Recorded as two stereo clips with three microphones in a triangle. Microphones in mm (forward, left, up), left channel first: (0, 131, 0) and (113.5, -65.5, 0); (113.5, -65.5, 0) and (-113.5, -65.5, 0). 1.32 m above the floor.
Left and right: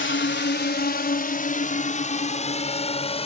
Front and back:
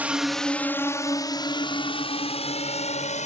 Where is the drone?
95° left; by 3.3 s 55° left.